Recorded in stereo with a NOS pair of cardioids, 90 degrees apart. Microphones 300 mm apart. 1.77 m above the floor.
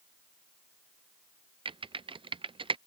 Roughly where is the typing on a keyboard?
Ahead.